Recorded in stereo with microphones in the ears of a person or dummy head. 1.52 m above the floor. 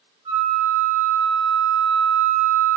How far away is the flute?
About 0.7 m.